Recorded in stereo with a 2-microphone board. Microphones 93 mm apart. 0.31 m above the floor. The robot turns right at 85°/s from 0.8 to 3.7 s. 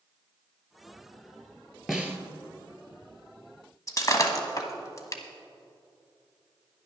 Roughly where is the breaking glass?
Left.